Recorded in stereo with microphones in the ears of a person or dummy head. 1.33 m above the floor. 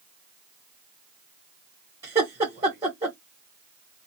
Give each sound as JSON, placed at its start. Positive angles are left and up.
{"t": 2.0, "sound": "laughter", "side_deg": -20, "distance_m": 1.0}